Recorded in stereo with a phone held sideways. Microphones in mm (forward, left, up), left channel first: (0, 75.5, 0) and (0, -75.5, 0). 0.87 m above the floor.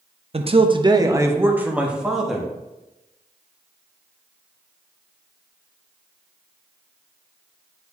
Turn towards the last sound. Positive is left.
turn(degrees=0)  # may be behind; listen again after turning